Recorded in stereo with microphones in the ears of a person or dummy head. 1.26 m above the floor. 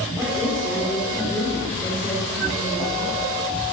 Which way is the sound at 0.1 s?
Centre (ahead or behind).